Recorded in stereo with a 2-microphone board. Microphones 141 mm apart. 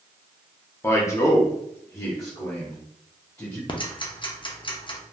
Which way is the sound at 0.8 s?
20° left (ahead or behind).